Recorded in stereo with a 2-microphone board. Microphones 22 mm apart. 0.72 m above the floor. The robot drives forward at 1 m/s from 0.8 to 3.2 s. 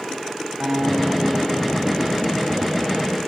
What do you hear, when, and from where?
0.6 s a guitar: 30° right (ahead or behind), 5.5 m; by 2.4 s 20° right (ahead or behind), 7 m